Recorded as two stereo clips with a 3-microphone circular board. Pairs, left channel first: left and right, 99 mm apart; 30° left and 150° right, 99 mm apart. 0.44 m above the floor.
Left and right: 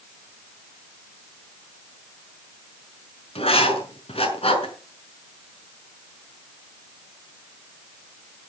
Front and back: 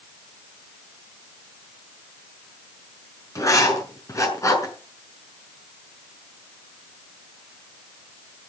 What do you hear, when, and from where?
3.4 s writing: 90° left, 5 m